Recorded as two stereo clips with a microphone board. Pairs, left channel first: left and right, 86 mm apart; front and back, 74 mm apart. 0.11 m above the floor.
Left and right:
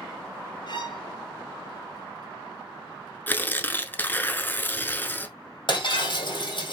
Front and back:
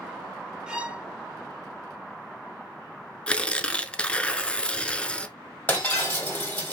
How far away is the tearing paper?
About 0.8 m.